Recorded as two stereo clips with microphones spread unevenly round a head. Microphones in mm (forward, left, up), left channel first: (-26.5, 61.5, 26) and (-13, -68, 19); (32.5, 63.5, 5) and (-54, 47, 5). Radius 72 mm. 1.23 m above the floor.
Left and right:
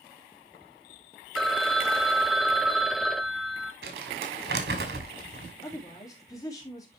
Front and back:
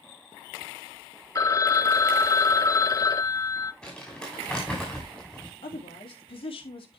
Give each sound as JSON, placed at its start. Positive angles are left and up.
{"t": 1.4, "sound": "a phone ringing", "azimuth_deg": 10, "distance_m": 0.5}
{"t": 3.8, "sound": "crumpling", "azimuth_deg": -75, "distance_m": 2.5}
{"t": 5.6, "sound": "a woman speaking", "azimuth_deg": 30, "distance_m": 3.0}